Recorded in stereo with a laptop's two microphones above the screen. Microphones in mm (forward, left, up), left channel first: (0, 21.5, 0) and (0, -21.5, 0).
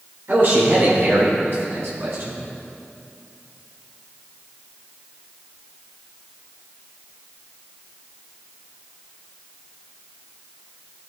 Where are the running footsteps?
I don't hear running footsteps.